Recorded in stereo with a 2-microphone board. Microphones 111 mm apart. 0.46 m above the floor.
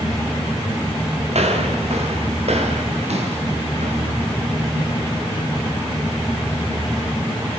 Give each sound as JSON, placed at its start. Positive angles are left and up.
{"t": 1.3, "sound": "footsteps", "side_deg": -70, "distance_m": 6.0}